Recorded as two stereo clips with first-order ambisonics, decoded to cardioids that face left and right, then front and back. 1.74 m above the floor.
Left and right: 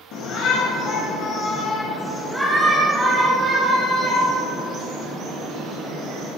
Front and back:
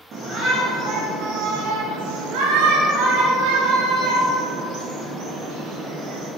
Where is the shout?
125° left, 2 m; by 6.3 s 135° right, 4.5 m.